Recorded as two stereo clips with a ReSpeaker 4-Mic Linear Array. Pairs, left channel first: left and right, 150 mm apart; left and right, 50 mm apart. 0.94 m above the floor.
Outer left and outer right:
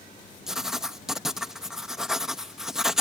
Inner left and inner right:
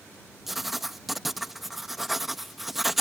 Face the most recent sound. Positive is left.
turn(degrees=-5)  # may be behind; listen again after turning